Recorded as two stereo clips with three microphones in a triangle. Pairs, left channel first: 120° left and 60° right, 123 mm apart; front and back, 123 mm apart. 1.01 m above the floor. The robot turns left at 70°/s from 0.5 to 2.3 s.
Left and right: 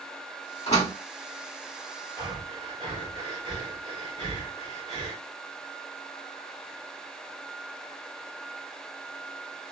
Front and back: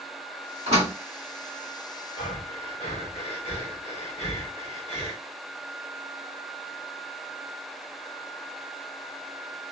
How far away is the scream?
I don't hear a scream.